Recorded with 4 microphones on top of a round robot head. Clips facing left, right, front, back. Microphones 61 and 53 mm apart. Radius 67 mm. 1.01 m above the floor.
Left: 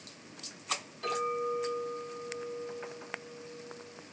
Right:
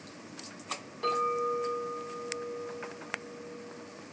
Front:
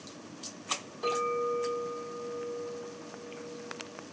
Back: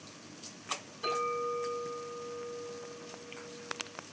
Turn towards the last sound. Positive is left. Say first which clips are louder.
# right 3 dB, front 3 dB
turn(degrees=-35)